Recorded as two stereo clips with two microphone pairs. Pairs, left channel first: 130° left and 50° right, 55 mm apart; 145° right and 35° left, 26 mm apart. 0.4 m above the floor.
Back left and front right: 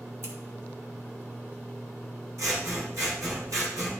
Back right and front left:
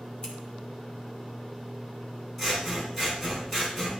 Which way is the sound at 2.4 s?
55° right.